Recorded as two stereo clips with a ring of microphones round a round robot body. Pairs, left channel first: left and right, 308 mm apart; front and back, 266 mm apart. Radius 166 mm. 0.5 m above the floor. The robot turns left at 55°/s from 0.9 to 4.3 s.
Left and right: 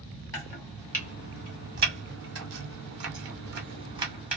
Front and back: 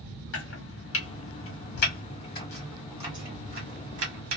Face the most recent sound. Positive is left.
turn(degrees=-175)